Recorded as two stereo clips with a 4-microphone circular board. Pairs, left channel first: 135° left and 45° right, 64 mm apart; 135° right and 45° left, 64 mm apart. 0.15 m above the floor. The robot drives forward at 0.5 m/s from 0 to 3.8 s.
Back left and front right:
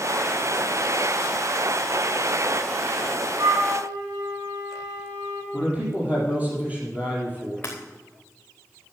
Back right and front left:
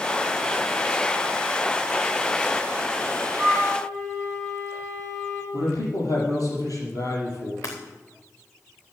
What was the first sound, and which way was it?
A flute, 45° right.